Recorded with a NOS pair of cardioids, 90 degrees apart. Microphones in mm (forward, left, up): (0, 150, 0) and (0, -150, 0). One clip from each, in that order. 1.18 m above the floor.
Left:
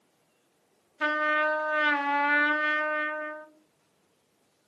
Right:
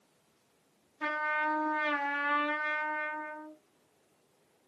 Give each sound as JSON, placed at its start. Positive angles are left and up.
{"t": 1.0, "sound": "a trumpet", "azimuth_deg": 65, "distance_m": 0.9}